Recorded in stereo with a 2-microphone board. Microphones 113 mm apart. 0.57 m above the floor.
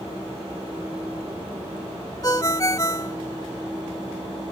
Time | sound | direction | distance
2.2 | a ringtone | 30° left (ahead or behind) | ?